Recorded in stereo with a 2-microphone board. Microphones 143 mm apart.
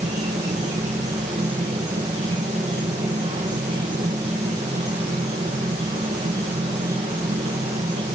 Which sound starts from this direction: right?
An insect, at 0.0 s.